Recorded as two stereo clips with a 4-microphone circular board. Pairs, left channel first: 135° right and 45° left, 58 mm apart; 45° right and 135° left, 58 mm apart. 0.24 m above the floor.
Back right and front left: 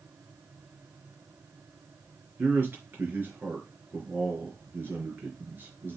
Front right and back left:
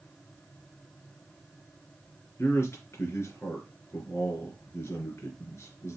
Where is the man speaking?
5° right, 3 m.